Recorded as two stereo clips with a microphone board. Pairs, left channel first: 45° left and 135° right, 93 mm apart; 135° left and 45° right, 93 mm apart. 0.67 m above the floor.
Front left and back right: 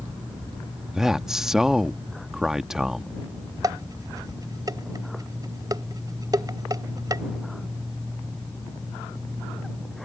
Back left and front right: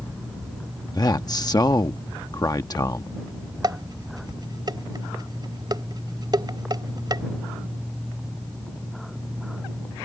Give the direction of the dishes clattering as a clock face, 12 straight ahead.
3 o'clock.